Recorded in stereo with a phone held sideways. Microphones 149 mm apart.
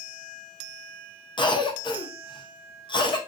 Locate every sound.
1.4 s a cough: 30° left (ahead or behind), 0.7 m